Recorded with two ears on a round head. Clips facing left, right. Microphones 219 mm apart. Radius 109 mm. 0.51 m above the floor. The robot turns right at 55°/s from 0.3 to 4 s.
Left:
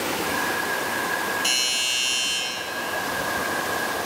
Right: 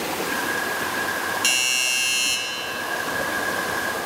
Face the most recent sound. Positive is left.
turn(degrees=25)